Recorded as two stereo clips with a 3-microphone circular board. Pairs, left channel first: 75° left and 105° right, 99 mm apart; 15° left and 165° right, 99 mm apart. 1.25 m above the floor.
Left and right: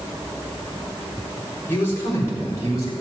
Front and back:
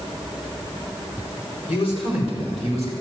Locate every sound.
1.7 s a man speaking: 5° left, 4 m; by 2.9 s 20° left, 5.5 m